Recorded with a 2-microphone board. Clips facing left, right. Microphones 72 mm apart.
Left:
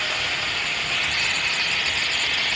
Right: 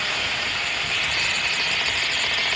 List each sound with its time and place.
Only background noise.